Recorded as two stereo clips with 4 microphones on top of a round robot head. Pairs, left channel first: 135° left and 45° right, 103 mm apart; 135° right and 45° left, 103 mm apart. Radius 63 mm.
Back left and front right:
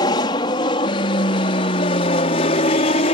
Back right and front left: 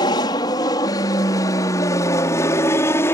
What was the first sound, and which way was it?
An aircraft, straight behind.